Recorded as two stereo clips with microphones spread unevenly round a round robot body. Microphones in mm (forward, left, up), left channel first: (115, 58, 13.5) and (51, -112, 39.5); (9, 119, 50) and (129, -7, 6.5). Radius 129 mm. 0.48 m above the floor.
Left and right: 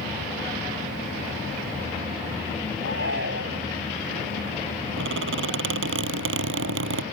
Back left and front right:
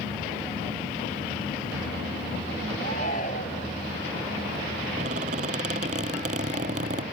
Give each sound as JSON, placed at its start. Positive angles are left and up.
{"t": 2.8, "sound": "a shout", "azimuth_deg": -165}
{"t": 5.0, "sound": "a squeak", "azimuth_deg": -110}